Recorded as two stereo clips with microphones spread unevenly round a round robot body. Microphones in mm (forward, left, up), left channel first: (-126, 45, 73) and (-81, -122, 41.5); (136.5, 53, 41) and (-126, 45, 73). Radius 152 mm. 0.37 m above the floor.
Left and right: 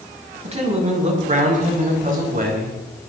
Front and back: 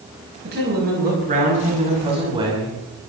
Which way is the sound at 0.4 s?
125° right.